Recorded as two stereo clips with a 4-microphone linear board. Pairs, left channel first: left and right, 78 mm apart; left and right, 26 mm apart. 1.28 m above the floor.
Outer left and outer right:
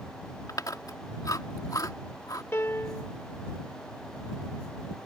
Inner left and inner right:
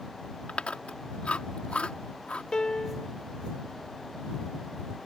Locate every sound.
0.5 s chewing: 55° left (ahead or behind)
2.5 s a piano: 35° left (ahead or behind)